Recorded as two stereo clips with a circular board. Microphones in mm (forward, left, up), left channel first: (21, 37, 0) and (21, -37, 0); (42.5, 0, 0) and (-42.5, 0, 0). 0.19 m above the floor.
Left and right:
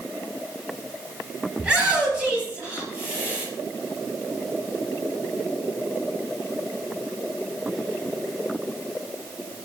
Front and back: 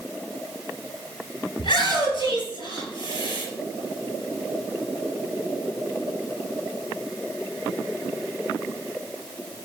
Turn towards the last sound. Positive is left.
turn(degrees=-20)